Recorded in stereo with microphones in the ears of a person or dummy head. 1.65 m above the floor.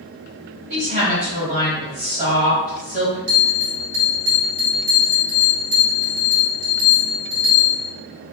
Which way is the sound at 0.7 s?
40° right (ahead or behind).